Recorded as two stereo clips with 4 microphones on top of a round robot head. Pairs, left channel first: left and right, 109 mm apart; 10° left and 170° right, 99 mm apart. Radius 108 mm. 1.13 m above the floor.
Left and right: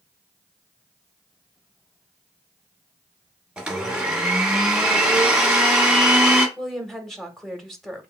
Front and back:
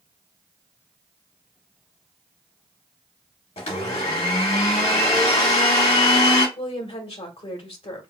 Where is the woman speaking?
5° left, 1.5 m.